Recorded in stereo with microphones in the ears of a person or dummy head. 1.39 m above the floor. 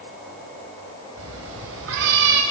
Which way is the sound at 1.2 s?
75° right (ahead or behind).